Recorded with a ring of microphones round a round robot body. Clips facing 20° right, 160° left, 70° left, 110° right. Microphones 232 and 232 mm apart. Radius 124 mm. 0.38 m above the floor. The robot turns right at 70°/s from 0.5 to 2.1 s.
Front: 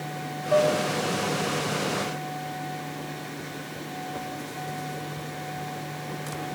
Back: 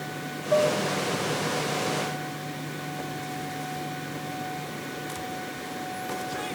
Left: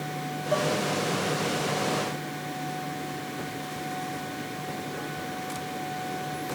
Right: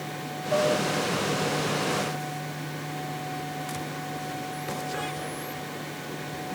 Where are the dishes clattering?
30° left, 2 m; by 0.8 s 50° left, 2 m.